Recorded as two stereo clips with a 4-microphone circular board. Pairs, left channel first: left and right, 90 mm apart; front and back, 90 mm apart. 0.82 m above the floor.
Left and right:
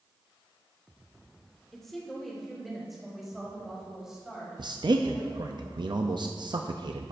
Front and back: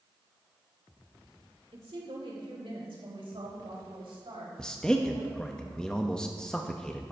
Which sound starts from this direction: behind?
A woman speaking, at 1.7 s.